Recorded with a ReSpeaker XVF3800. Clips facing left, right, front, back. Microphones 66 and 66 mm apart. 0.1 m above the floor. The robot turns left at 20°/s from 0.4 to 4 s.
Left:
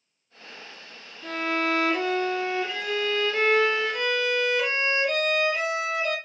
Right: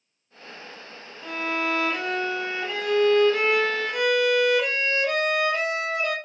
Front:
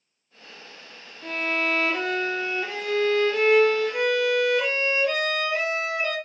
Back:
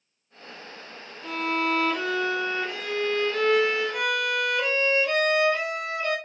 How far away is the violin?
About 2 m.